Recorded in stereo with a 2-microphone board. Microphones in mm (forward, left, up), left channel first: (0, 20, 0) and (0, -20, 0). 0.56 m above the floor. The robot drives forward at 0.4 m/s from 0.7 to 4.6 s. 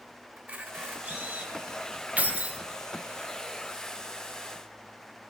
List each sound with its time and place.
0.4 s a camera shutter: 30° right (ahead or behind), 2 m; by 1.5 s 35° right (ahead or behind), 1.8 m
2.2 s keys jangling: 40° right (ahead or behind), 0.7 m; by 2.6 s 35° right (ahead or behind), 0.8 m